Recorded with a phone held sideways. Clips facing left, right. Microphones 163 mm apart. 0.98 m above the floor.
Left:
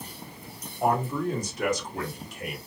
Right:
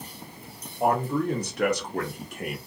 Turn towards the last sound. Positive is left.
turn(degrees=-45)  # may be behind; listen again after turning